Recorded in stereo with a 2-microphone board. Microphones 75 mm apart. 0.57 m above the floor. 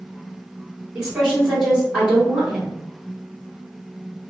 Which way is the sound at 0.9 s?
15° right (ahead or behind).